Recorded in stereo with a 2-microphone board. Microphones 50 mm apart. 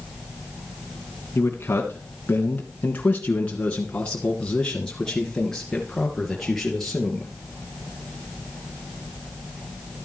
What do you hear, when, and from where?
1.4 s a man speaking: 45° left (ahead or behind), 1.7 m; by 7.3 s 5° left (ahead or behind), 3.5 m